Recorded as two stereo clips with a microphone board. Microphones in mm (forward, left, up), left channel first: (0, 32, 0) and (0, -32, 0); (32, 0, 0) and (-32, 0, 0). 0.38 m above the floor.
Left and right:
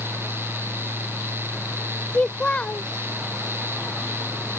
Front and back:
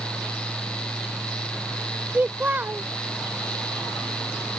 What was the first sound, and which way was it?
A child speaking, 150° left.